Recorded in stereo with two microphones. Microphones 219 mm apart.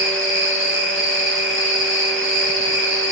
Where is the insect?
65° left (ahead or behind), 1.4 m.